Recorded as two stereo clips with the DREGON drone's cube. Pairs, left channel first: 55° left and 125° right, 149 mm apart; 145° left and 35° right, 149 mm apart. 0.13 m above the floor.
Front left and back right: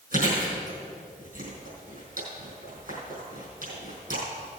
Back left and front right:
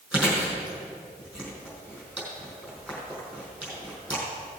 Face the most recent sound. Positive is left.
turn(degrees=-115)